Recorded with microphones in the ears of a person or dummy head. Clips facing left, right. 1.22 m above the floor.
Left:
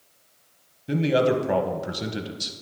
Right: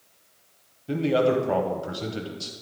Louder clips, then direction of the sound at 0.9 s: Left 1 dB; 15° left (ahead or behind).